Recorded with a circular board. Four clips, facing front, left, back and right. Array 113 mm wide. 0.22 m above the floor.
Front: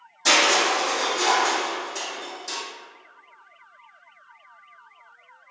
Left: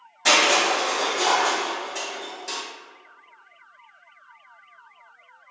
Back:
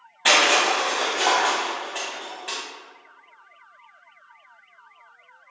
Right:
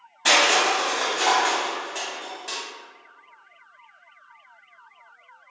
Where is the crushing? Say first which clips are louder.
Even, back 1 dB; 165° right, 0.9 m.